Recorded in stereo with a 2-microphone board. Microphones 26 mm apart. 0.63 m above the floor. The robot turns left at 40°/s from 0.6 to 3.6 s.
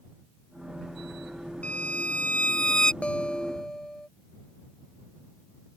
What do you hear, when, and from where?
1.6 s a violin: 80° left; by 2.9 s 30° left
3.0 s a guitar: 50° left (ahead or behind); by 4.1 s 25° left (ahead or behind)